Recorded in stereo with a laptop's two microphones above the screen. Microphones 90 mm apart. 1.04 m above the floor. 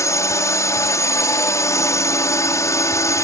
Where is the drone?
35° left (ahead or behind).